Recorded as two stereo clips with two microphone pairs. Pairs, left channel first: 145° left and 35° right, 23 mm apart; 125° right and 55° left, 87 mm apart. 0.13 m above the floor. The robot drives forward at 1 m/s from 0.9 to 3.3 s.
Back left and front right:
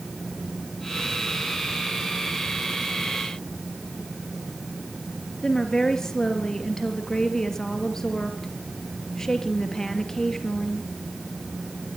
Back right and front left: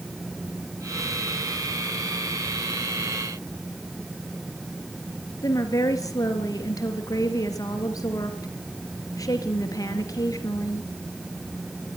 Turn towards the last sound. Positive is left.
turn(degrees=-160)